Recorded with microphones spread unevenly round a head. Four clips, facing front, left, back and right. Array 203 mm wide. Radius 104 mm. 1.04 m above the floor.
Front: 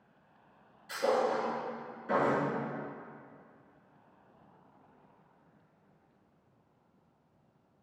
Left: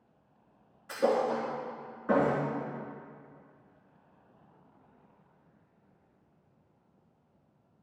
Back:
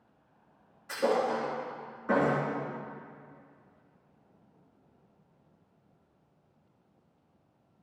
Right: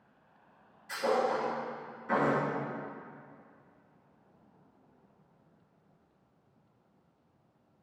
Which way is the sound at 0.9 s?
115° left.